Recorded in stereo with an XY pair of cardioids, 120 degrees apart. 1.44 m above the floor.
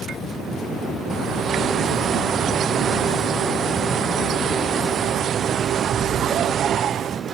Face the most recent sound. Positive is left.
turn(degrees=-55)